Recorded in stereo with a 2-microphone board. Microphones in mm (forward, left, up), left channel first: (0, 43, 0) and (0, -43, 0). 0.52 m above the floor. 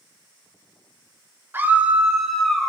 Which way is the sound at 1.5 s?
25° right (ahead or behind).